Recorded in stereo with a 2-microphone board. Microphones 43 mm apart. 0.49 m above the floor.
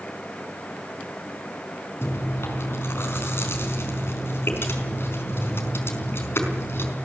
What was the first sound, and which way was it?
Chewing, 65° left (ahead or behind).